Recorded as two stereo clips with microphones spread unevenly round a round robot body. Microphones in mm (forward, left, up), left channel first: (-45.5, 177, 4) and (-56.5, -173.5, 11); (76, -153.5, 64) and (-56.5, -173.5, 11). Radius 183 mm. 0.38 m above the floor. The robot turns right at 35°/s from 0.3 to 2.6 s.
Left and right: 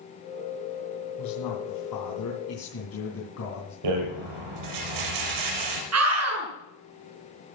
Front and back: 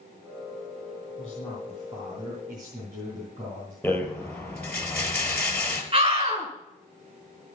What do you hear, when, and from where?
1.2 s a man speaking: 80° left, 3.5 m; by 3.7 s 130° left, 3.5 m
3.8 s a rattle: 70° right, 5 m
5.9 s a scream: 135° right, 6 m